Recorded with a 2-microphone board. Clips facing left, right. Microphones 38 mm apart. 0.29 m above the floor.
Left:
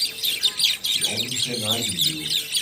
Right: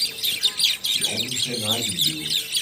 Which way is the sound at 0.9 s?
Centre (ahead or behind).